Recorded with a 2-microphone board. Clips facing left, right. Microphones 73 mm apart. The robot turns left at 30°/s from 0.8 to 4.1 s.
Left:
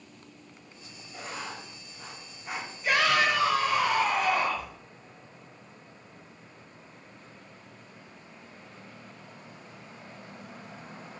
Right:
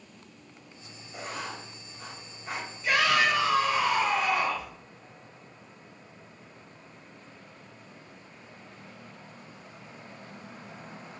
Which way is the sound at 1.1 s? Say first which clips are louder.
Right 1 dB; 5° right (ahead or behind).